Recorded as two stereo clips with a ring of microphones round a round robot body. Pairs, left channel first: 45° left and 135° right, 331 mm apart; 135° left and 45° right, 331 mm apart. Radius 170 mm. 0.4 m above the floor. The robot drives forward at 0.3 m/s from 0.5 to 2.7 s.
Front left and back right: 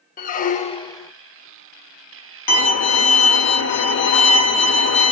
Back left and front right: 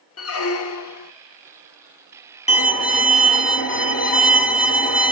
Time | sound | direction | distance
0.2 | a squeak | 105° left | 0.5 m
2.5 | a violin | 65° left | 0.9 m